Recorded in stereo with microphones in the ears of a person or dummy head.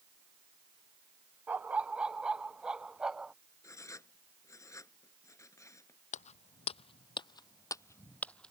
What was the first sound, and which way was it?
A dog barking, 5° right (ahead or behind).